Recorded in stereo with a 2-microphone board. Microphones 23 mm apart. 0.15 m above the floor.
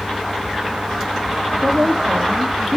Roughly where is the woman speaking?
Right.